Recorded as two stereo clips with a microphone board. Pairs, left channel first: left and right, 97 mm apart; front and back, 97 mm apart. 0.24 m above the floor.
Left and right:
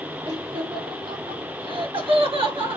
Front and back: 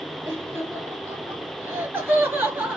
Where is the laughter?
115° right, 5.5 m; by 2.8 s 110° right, 3.5 m.